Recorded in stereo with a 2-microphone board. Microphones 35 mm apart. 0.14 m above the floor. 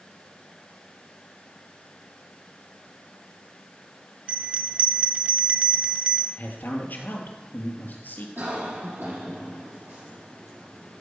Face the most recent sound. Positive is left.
turn(degrees=-70)  # may be behind; listen again after turning